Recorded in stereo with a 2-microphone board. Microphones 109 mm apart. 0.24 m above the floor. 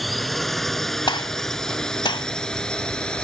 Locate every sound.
0.0 s a drone: centre (ahead or behind); by 3.2 s 10° left (ahead or behind)
1.1 s a gunshot: 45° left (ahead or behind)